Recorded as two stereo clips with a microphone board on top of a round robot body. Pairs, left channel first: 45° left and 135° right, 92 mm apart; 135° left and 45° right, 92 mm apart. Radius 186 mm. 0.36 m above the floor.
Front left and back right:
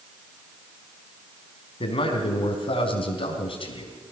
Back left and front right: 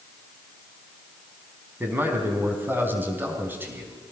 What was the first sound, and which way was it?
A man speaking, 25° left.